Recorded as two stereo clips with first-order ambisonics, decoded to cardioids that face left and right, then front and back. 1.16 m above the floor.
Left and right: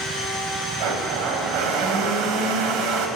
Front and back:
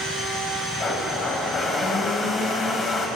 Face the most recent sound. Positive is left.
turn(degrees=-70)